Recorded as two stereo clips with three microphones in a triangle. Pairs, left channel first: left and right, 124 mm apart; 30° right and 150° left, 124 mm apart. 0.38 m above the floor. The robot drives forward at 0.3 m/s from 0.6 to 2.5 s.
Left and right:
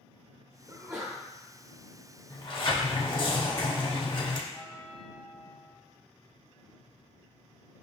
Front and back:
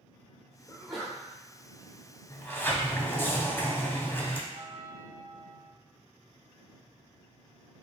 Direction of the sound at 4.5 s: 145° left.